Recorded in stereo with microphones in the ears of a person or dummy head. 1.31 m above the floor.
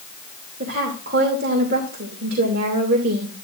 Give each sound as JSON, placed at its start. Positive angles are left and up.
{"t": 0.6, "sound": "a woman speaking", "side_deg": -55, "distance_m": 2.5}